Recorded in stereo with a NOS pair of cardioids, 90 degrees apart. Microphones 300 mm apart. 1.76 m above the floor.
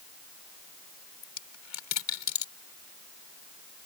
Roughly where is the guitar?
No guitar in this recording.